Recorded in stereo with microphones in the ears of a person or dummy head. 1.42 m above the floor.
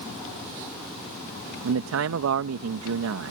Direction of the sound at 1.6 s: 75° right (ahead or behind).